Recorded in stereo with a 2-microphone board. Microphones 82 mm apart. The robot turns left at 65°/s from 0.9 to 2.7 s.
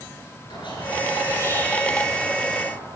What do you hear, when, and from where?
0.5 s a squeak: 70° left, 5 m; by 2.7 s 45° right, 5 m